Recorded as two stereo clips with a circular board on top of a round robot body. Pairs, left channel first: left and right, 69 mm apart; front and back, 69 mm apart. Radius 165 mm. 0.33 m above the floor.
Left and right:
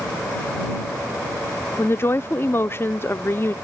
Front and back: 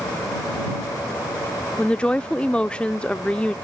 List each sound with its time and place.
1.8 s a woman speaking: 65° left